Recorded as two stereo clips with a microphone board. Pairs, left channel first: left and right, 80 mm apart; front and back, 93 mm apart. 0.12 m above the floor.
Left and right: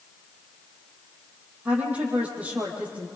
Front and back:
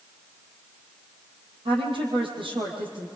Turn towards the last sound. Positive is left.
turn(degrees=-160)